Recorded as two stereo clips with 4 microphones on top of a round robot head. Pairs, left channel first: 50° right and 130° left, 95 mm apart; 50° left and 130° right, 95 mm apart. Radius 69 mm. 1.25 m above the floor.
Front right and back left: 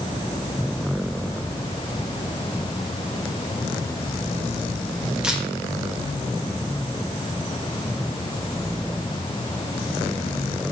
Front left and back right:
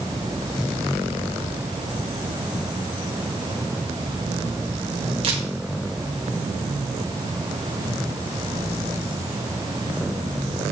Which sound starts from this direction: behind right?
A camera shutter, at 5.2 s.